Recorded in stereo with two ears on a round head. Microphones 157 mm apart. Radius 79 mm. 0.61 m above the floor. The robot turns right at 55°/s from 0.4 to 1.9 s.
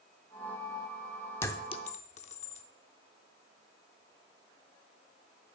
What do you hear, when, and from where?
1.4 s a clink: 15° left (ahead or behind), 0.6 m; by 2.6 s 40° left (ahead or behind), 0.6 m